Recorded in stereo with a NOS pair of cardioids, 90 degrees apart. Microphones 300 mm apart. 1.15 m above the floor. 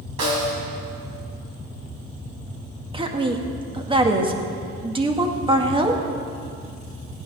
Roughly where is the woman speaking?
Ahead.